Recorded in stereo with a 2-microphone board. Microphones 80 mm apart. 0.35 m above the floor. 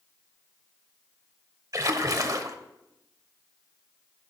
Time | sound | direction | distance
1.7 | a splash | 45° right (ahead or behind) | 0.9 m